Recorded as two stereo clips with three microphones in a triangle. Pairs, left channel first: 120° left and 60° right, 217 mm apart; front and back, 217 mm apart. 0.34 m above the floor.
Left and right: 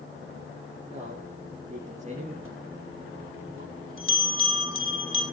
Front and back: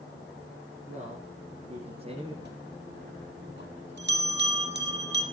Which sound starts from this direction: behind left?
A bell, at 2.4 s.